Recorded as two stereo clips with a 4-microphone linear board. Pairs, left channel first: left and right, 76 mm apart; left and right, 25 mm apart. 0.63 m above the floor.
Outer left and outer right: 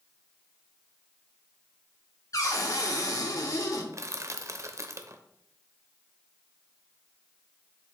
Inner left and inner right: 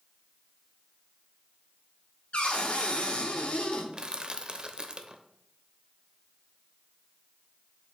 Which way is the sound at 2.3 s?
50° left (ahead or behind).